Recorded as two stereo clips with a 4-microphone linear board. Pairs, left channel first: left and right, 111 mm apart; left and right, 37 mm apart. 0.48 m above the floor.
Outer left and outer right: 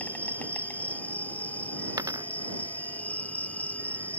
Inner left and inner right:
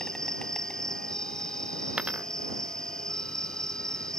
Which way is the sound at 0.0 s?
15° left (ahead or behind).